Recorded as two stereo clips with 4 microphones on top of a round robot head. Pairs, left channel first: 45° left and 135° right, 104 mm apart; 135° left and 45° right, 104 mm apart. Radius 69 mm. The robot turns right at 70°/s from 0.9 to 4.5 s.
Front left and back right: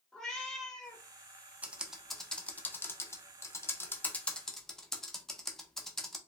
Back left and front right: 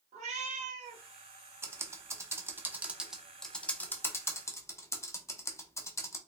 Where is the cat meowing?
40° right, 0.8 m; by 1.0 s 30° right, 0.8 m.